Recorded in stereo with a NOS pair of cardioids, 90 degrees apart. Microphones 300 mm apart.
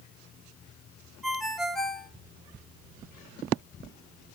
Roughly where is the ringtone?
Ahead.